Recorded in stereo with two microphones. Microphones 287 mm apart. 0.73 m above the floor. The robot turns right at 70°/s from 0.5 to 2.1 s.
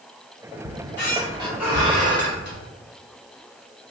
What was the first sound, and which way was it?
A squeak, 115° left.